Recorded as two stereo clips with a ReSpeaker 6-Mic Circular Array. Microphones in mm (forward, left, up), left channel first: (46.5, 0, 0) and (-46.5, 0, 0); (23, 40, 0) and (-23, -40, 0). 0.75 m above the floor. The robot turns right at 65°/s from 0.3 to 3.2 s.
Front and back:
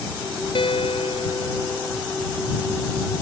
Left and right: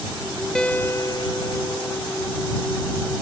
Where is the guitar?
25° right; by 2.0 s 70° left.